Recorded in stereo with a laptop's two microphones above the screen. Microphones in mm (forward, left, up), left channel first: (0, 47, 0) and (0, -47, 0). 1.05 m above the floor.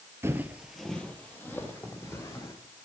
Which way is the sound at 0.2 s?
25° right (ahead or behind).